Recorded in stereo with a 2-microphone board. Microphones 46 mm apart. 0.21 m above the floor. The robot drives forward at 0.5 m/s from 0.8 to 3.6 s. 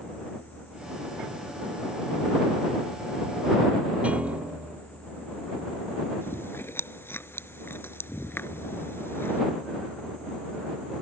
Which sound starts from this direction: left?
Chewing, at 6.2 s.